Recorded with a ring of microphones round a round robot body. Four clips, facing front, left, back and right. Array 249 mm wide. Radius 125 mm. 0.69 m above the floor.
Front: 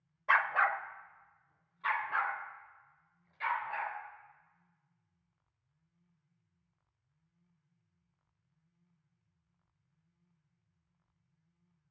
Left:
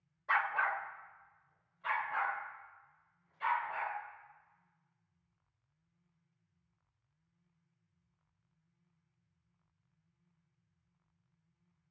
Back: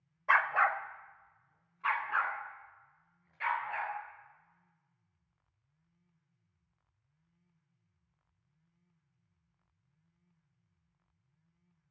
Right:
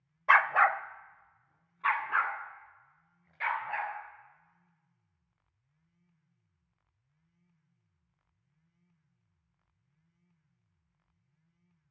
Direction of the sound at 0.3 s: 95° right.